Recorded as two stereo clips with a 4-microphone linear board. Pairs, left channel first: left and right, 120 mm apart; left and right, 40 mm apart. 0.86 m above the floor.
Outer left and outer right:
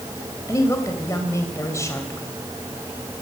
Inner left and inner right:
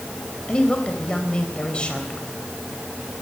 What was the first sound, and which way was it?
A woman speaking, 25° left (ahead or behind).